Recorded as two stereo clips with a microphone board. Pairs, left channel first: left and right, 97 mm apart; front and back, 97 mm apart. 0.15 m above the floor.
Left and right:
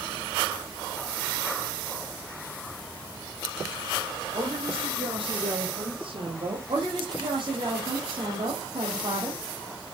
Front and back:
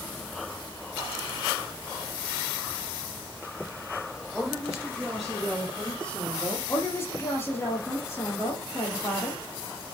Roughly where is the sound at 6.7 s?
Ahead right.